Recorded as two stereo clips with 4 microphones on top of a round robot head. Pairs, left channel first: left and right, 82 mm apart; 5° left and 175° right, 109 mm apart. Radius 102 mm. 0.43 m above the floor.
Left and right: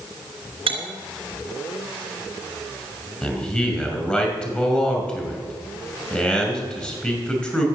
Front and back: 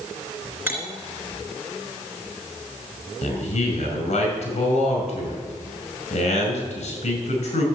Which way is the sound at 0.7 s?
100° right.